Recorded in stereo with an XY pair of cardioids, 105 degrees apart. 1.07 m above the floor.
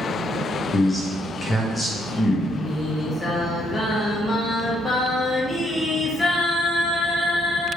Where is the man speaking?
30° left, 1.1 m.